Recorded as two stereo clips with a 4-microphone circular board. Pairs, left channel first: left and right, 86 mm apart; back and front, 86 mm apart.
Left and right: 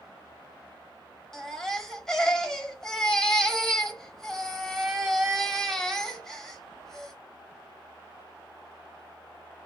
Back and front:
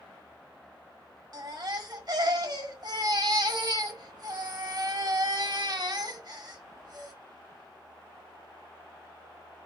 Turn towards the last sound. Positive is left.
turn(degrees=5)